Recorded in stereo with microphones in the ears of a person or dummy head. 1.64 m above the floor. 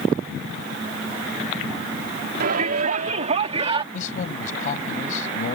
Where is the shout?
60° right (ahead or behind); by 3.8 s 35° right (ahead or behind).